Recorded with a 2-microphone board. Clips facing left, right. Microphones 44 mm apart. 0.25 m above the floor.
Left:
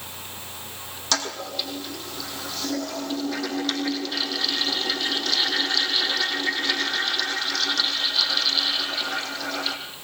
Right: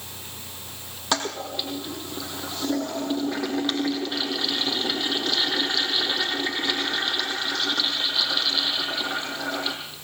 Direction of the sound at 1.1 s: 15° right (ahead or behind).